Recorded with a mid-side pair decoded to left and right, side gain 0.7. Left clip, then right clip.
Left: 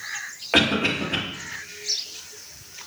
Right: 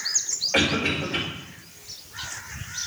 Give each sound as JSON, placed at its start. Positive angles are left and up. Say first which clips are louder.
{"t": 0.5, "sound": "a cough", "louder": "left 4 dB", "azimuth_deg": 70, "distance_m": 2.0}